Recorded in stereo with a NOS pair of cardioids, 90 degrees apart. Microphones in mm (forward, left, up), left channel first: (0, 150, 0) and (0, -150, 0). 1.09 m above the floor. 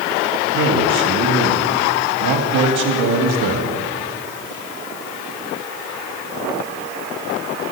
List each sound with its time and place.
0.5 s a man speaking: 70° right, 2 m